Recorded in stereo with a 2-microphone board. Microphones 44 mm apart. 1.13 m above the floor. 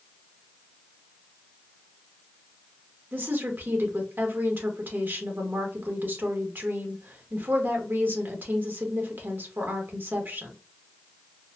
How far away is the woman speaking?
About 1.3 m.